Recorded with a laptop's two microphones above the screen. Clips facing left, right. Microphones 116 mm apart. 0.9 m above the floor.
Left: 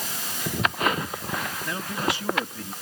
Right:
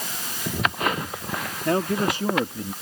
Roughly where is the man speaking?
Right.